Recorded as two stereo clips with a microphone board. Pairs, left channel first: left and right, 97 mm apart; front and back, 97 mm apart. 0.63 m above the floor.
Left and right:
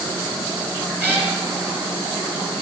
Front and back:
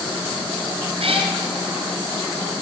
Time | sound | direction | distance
1.0 | a cat meowing | 165° right | 2.5 m